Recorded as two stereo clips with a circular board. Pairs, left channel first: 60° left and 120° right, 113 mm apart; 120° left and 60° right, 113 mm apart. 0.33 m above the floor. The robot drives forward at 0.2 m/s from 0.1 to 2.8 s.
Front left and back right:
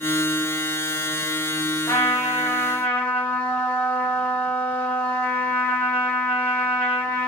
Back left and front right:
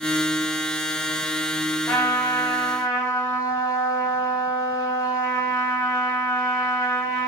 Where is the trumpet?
75° left, 0.7 m; by 7.3 s 115° left, 0.7 m.